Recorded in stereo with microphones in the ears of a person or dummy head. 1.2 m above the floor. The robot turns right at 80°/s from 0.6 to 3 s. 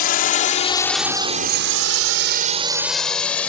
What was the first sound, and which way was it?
A drone, 50° left (ahead or behind).